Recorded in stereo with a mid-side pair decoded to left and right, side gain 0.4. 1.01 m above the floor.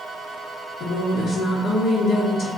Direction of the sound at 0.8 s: 70° left.